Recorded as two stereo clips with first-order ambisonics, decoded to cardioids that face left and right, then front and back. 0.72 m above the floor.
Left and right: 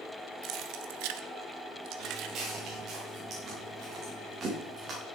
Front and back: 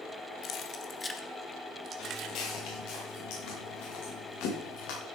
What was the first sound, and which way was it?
Keys jangling, 50° right.